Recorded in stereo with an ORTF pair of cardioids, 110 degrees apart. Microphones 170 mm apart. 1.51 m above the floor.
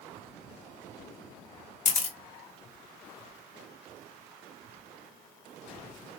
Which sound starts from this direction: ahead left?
A camera shutter, at 1.9 s.